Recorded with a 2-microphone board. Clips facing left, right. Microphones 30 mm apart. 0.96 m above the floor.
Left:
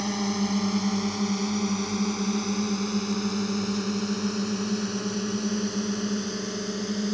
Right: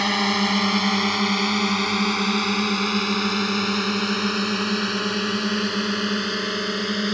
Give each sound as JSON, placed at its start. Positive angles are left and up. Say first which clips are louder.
{"t": 0.0, "sound": "a drone", "louder": "right 7 dB", "side_deg": -75}